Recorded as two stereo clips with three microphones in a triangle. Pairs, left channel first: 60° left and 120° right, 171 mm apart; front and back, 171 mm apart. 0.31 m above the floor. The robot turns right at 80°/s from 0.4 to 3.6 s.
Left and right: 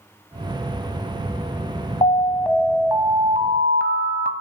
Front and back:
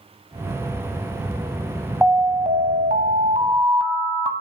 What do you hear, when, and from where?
2.0 s an alarm: 105° left, 1.1 m; by 4.3 s 130° right, 1.1 m